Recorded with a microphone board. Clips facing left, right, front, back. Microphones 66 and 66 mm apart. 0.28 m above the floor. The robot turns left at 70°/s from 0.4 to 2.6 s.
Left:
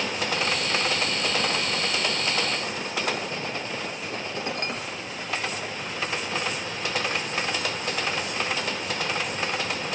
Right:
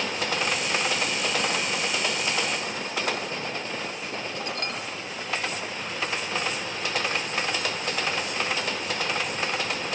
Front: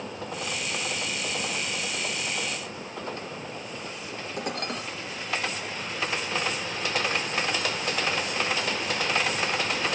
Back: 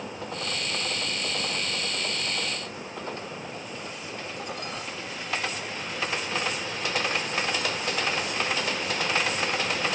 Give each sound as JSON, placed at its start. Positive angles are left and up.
{"t": 4.4, "sound": "dishes clattering", "azimuth_deg": 25, "distance_m": 4.0}